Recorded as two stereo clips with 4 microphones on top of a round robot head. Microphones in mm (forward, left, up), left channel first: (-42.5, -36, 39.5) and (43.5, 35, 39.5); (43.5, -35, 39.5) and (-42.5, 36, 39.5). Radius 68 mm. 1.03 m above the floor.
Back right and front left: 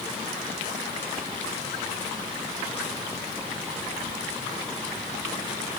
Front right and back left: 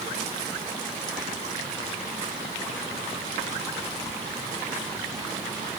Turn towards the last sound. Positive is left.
No sound to turn to.